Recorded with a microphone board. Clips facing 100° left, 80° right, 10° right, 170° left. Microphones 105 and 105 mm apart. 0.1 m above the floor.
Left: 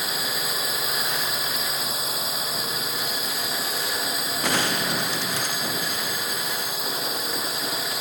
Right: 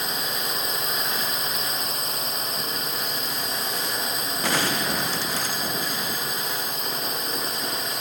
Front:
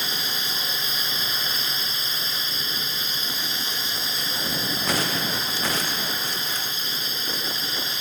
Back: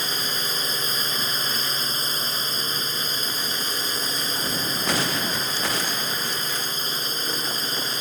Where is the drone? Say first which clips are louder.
Even, back 2 dB; 175° right.